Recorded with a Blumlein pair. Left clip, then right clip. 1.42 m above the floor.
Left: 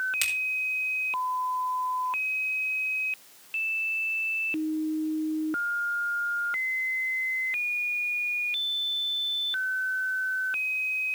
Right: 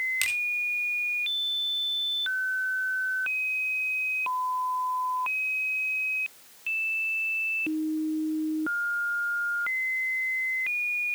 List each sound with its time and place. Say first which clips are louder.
0.2 s a finger snap: even; straight ahead, 3.5 m